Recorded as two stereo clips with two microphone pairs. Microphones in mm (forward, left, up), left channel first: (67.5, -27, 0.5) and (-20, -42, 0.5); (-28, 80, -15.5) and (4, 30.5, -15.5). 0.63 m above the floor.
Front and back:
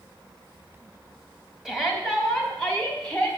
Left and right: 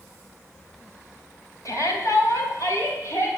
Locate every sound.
1.6 s a shout: 105° left, 3.5 m; by 3.3 s 90° left, 4.5 m